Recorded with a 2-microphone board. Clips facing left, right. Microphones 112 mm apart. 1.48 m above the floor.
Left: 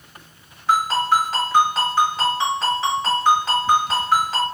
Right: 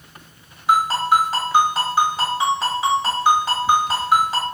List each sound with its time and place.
0.7 s a ringtone: 10° right (ahead or behind), 1.3 m